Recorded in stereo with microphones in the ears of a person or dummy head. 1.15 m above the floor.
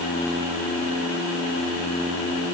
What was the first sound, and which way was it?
Only background noise.